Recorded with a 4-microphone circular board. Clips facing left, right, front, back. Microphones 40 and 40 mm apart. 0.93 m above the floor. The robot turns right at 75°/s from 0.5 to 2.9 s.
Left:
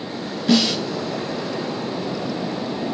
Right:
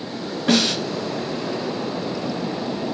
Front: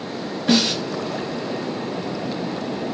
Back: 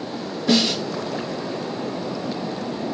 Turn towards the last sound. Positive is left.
turn(degrees=115)